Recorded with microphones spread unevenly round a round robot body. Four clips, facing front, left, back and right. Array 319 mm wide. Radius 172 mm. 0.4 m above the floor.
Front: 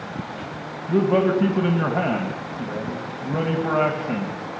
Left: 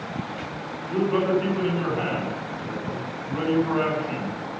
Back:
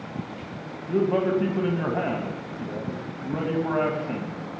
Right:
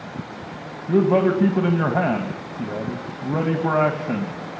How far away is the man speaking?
About 3 m.